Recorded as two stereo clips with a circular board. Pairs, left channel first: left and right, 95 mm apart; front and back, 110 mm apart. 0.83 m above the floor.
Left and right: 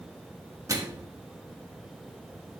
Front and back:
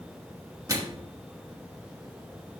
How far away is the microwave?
About 1.1 m.